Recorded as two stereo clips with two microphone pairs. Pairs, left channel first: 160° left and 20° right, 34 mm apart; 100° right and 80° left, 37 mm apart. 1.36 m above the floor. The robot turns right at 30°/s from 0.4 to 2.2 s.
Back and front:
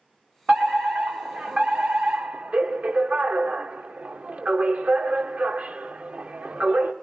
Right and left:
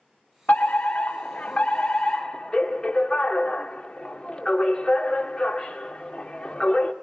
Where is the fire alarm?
80° right, 2 m; by 6.9 s 30° right, 2 m.